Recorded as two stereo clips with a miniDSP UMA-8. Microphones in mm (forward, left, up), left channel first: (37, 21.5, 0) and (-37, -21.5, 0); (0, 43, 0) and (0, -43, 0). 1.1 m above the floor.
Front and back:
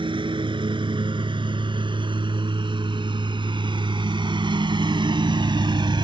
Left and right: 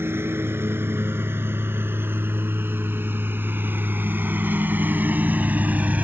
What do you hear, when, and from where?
0.0 s a lawn mower: 150° right; by 6.0 s 160° right